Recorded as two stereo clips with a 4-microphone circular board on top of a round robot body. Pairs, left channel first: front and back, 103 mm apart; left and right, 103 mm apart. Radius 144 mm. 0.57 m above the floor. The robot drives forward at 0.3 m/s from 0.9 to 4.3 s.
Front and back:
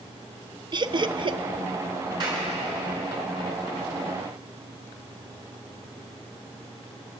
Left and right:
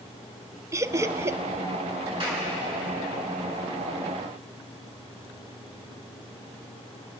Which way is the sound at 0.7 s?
145° right.